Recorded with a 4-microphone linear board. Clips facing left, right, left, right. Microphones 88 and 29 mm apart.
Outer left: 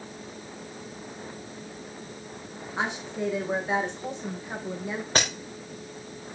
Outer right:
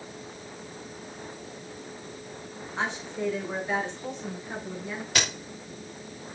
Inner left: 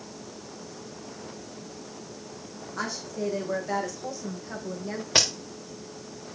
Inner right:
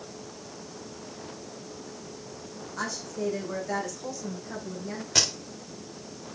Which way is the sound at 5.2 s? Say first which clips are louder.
Outer left 3 dB, inner left 2 dB; 35° left (ahead or behind).